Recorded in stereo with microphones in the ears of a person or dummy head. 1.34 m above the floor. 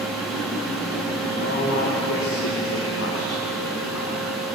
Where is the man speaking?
60° left (ahead or behind), 5.5 m; by 4.3 s 75° left (ahead or behind), 5 m.